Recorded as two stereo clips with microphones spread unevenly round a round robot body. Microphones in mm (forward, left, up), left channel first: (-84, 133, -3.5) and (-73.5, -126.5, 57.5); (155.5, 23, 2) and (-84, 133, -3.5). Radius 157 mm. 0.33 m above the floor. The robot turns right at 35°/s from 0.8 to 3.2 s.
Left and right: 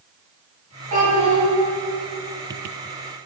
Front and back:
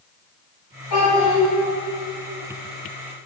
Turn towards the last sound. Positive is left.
turn(degrees=40)